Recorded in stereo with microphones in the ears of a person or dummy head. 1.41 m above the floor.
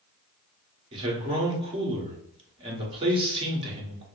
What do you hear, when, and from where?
0.9 s a man speaking: 35° right (ahead or behind), 1.1 m